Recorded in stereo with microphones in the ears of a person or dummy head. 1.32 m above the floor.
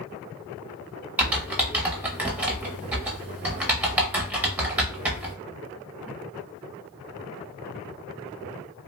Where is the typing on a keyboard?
10° right (ahead or behind), 0.6 m.